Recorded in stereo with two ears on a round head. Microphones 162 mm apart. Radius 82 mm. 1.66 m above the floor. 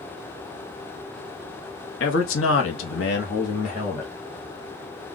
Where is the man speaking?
75° left (ahead or behind), 1.0 m; by 4.1 s 25° left (ahead or behind), 1.0 m.